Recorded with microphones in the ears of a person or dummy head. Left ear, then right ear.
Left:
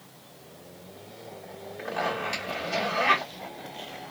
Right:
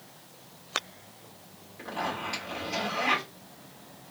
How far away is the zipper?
About 1.4 m.